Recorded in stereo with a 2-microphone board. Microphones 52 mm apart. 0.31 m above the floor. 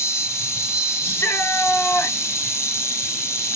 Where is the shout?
45° left (ahead or behind), 4 m.